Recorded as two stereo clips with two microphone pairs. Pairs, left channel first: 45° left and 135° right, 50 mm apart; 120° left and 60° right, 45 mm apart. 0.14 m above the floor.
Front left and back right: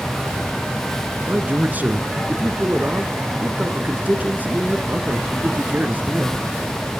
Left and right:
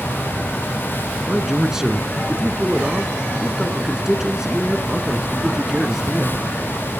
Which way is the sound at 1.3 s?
130° right.